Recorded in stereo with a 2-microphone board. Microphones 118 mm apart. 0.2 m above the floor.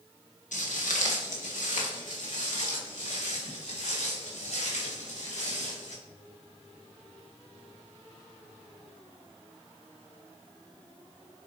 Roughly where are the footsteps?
Left.